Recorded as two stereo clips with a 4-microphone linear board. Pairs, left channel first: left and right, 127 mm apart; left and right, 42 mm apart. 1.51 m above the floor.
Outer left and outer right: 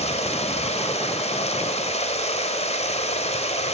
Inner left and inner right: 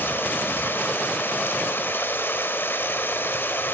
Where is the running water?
55° left (ahead or behind), 2.0 m.